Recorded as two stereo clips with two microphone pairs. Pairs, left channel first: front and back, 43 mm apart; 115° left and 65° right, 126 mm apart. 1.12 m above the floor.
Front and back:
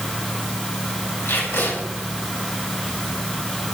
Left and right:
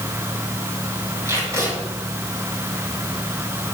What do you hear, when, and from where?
1.2 s tape being pulled: straight ahead, 6.5 m